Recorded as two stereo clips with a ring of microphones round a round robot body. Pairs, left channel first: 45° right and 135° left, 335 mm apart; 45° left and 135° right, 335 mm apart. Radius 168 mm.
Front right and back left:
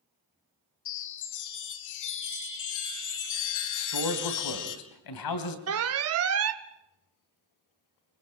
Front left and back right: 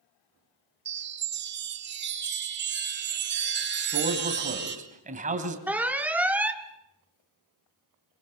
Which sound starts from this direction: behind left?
An alarm, at 5.7 s.